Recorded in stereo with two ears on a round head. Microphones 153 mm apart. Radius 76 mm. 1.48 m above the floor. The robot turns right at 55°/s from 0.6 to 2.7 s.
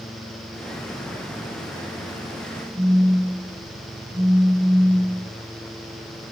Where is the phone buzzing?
15° right (ahead or behind), 5 m.